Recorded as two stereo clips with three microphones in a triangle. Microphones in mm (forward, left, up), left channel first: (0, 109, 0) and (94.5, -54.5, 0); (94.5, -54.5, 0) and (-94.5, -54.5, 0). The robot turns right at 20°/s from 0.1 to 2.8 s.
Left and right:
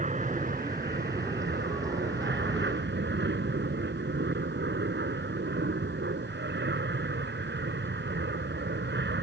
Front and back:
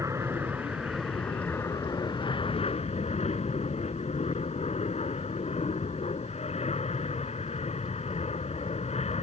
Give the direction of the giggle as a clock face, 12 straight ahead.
I don't hear a giggle.